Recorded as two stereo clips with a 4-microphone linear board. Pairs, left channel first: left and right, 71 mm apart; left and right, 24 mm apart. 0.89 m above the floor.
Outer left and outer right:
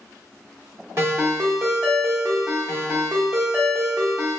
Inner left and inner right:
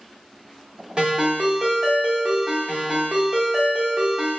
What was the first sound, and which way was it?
A ringtone, 40° right (ahead or behind).